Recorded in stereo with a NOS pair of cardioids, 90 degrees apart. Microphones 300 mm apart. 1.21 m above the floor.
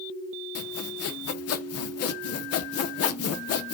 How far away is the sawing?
About 0.7 m.